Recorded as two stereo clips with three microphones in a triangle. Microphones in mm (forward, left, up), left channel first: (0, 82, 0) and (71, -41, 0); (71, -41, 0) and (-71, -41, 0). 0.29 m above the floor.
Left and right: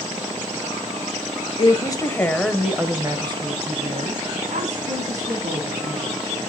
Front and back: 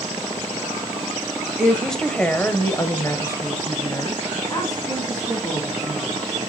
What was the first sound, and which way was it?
A woman speaking, 90° left.